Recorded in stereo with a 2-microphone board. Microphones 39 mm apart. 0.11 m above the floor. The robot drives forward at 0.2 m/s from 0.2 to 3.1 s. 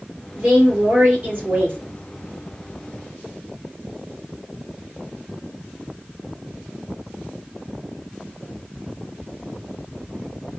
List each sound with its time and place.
0.4 s a woman speaking: 45° right (ahead or behind), 3 m